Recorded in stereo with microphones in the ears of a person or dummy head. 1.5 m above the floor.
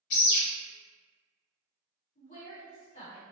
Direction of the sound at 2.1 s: 45° left (ahead or behind).